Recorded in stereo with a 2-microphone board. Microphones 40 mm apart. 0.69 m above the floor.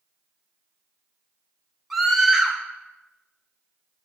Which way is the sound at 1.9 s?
5° right (ahead or behind).